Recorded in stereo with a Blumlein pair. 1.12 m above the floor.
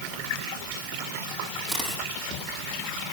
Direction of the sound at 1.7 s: Straight ahead.